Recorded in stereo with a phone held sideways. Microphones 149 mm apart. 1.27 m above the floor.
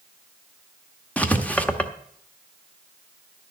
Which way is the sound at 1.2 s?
10° left (ahead or behind).